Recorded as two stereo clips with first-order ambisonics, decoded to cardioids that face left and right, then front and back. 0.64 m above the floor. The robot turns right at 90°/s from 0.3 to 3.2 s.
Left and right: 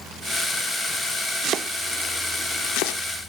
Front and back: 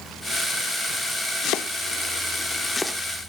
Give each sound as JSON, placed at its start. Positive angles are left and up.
{"t": 1.4, "sound": "chopping", "azimuth_deg": -45, "distance_m": 0.7}